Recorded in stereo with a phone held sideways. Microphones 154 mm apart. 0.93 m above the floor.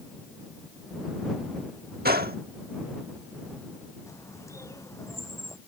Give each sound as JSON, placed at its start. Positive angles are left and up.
{"t": 2.0, "sound": "a gunshot", "side_deg": -80}
{"t": 4.1, "sound": "a bird", "side_deg": 20}